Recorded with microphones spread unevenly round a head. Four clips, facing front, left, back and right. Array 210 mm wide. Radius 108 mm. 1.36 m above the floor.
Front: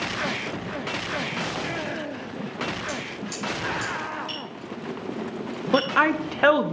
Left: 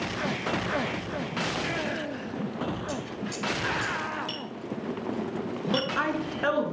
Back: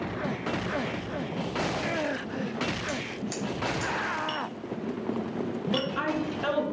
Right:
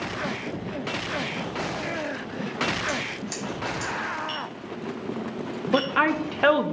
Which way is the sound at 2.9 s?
130° right.